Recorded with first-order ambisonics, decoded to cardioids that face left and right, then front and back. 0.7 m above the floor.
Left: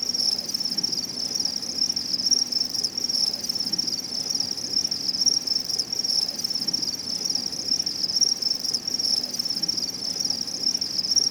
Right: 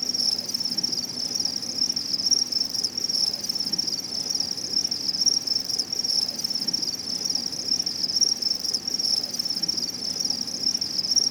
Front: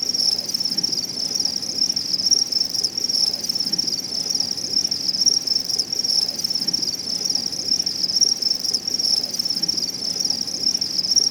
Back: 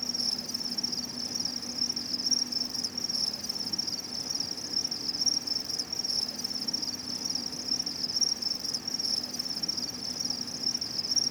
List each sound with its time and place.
0.0 s an insect: straight ahead